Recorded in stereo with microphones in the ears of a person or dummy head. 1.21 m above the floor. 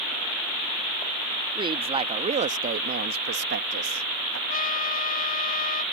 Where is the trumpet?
55° left (ahead or behind).